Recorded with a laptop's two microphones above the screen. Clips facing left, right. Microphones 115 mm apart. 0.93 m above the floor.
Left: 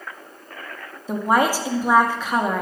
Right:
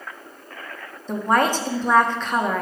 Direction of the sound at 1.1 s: 10° left (ahead or behind).